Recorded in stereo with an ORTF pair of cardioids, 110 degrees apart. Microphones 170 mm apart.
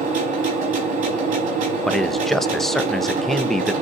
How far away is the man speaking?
About 0.5 m.